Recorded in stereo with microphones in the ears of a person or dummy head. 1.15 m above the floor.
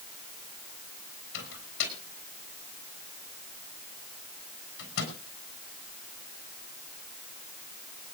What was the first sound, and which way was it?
A microwave, 65° left (ahead or behind).